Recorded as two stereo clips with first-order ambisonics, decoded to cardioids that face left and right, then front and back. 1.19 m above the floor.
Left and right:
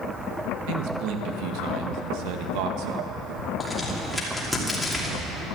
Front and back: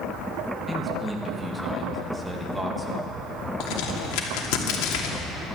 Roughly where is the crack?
Ahead.